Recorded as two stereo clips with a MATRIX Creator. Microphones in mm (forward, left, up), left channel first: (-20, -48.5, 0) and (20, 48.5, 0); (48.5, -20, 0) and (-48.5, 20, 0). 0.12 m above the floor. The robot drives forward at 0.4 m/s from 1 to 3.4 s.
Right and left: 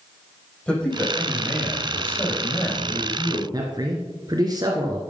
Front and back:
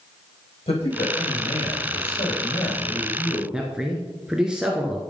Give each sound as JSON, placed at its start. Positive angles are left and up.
{"t": 0.7, "sound": "a man speaking", "azimuth_deg": -35, "distance_m": 6.0}
{"t": 3.5, "sound": "a man speaking", "azimuth_deg": 80, "distance_m": 1.5}